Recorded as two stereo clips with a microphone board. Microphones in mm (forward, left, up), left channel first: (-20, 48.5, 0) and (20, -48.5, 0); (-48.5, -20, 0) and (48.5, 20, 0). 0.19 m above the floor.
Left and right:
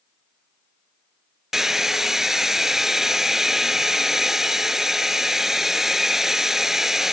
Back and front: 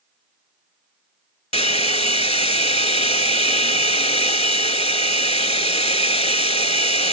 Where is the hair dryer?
155° right.